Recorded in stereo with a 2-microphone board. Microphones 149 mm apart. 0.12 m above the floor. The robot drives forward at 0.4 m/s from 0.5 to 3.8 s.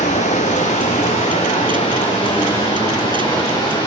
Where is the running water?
55° left (ahead or behind), 1.5 m; by 3.9 s 30° left (ahead or behind), 2.5 m.